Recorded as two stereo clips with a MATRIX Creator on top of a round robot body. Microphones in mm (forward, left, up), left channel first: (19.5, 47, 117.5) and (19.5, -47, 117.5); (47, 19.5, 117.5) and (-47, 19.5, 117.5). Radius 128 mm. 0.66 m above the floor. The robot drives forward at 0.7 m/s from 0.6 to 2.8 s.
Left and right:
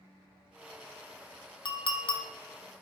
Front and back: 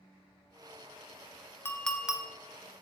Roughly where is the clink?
Ahead left.